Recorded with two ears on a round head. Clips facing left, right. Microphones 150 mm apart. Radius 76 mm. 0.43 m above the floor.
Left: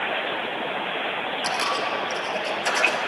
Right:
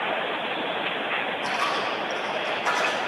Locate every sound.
1.4 s a dropped coin: 35° left (ahead or behind), 2.0 m